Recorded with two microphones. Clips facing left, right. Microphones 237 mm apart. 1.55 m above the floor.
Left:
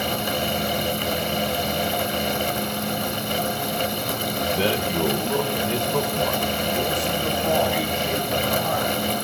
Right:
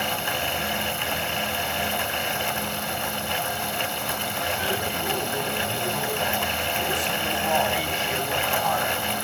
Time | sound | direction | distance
4.5 | a man speaking | 70° left (ahead or behind) | 2.5 m